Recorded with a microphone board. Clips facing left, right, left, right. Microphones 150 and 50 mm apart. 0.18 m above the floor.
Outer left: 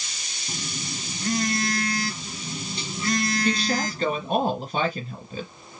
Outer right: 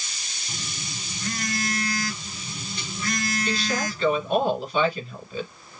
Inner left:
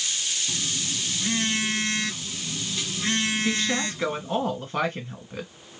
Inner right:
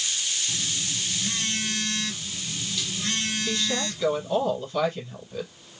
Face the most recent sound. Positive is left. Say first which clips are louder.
# outer left 2 dB, inner left 2 dB
turn(degrees=45)  # may be behind; listen again after turning